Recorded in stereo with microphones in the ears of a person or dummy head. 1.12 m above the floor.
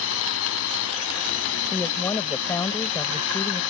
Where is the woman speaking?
15° left (ahead or behind).